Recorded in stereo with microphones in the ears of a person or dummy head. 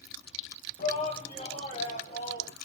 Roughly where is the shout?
Left.